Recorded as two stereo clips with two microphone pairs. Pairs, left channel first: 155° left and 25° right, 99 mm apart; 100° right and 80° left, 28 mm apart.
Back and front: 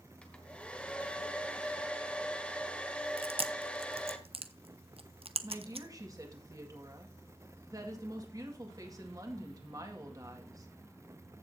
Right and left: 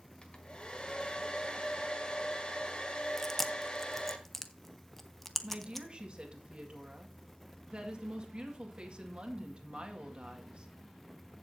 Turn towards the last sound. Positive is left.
turn(degrees=30)